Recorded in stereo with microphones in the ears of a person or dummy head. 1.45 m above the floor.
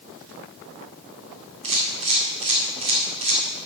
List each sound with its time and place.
1.6 s a camera shutter: 35° right (ahead or behind), 3 m